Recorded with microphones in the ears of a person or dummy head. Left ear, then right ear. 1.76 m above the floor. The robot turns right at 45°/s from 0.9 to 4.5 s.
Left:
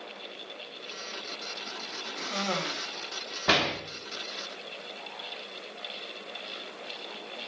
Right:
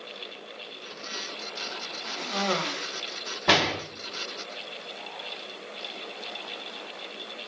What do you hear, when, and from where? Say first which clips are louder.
2.2 s a cough: right 3 dB; 165° left, 0.9 m; by 2.9 s 160° right, 0.9 m
3.5 s a door slam: right 3 dB; centre (ahead or behind), 1.9 m; by 3.7 s 10° right (ahead or behind), 1.9 m